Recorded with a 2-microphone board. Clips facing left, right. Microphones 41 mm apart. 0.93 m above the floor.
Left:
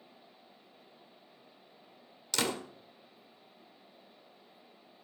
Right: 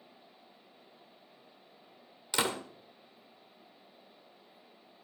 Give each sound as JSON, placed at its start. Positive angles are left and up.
{"t": 2.3, "sound": "a door slam", "side_deg": -20, "distance_m": 1.9}